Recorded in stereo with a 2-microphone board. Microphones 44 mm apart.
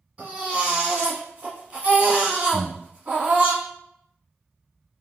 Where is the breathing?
45° right (ahead or behind), 1.5 m.